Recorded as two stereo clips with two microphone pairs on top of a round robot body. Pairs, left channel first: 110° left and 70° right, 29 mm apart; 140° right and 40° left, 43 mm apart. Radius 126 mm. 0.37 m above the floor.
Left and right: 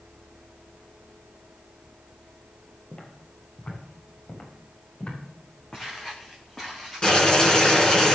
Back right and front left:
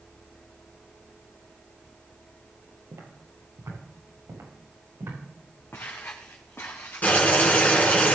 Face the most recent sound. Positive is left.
turn(degrees=170)